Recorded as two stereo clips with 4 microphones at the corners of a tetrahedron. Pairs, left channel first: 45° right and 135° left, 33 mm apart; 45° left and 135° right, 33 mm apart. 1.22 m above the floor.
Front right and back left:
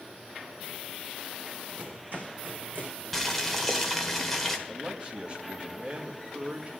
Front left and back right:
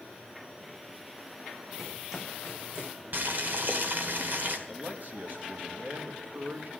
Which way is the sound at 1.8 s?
145° left.